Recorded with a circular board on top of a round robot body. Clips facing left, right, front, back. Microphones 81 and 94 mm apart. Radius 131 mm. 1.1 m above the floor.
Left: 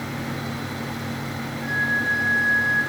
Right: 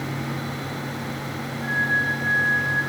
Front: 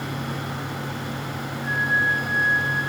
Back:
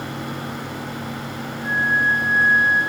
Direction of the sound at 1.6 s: 35° right.